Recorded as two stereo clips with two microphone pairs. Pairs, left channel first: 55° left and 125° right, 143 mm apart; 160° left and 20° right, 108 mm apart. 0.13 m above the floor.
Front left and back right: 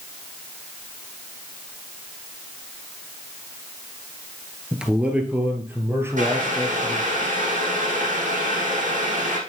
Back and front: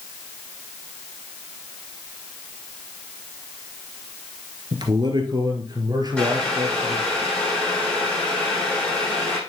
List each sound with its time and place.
4.7 s a man speaking: 45° right, 1.9 m; by 7.2 s 65° right, 3 m
6.2 s boiling: 120° right, 5.5 m